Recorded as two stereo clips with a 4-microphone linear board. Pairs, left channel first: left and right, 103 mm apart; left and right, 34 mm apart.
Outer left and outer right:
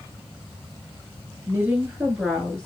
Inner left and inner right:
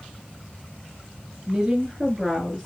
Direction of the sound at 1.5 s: 25° right (ahead or behind).